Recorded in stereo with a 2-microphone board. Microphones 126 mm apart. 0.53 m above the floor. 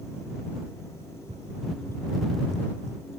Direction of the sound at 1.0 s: 55° right (ahead or behind).